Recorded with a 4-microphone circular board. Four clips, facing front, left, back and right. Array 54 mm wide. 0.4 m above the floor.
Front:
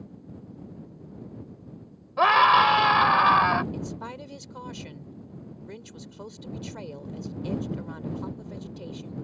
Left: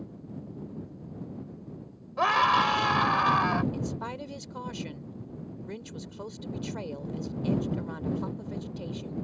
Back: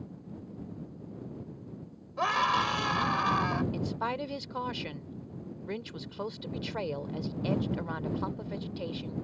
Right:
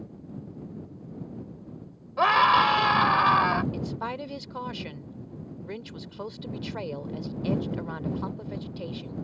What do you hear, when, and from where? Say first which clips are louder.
2.2 s a scream: right 3 dB, front 10 dB; 15° right
3.7 s a woman speaking: right 2 dB, back 3 dB; 150° right